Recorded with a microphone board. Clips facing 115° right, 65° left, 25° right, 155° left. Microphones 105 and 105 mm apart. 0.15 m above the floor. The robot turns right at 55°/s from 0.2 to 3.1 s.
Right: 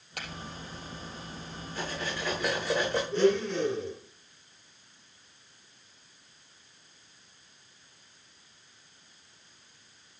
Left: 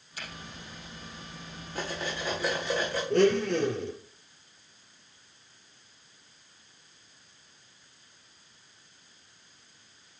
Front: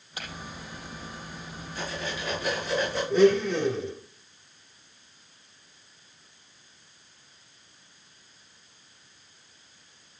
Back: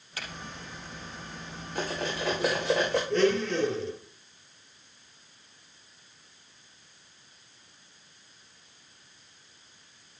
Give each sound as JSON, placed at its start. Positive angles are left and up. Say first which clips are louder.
{"t": 0.2, "sound": "a finger snap", "louder": "right 2 dB, front 1 dB", "azimuth_deg": -95, "distance_m": 4.0}
{"t": 1.8, "sound": "cutlery clinking", "louder": "left 1 dB, back 3 dB", "azimuth_deg": 115, "distance_m": 6.0}
{"t": 3.1, "sound": "a blender", "louder": "left 3 dB, front 7 dB", "azimuth_deg": 55, "distance_m": 3.0}